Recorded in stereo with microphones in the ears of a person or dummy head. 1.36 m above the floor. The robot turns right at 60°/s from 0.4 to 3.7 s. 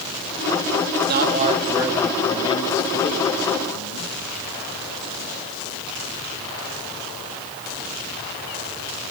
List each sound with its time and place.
1.1 s a man speaking: 55° right, 2.5 m; by 4.1 s 100° left, 2.5 m